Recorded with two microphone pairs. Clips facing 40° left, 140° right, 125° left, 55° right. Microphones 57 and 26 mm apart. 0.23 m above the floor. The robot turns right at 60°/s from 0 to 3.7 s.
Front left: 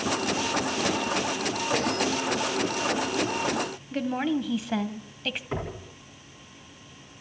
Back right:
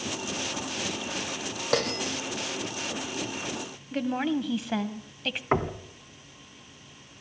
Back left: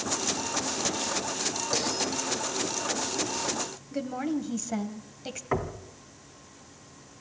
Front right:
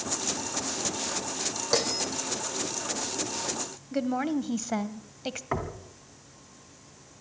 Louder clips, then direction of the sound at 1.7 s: Back right 1 dB, front right 3 dB; 120° right.